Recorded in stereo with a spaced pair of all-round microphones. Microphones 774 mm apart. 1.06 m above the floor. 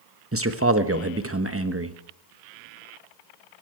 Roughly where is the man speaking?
Centre.